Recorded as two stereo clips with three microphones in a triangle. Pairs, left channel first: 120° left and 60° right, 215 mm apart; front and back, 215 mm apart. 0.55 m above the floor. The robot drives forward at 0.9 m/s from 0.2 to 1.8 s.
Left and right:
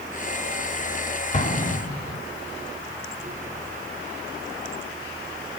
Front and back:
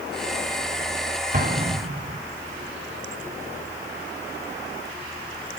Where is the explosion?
155° left, 1.1 m; by 2.2 s 165° left, 1.4 m.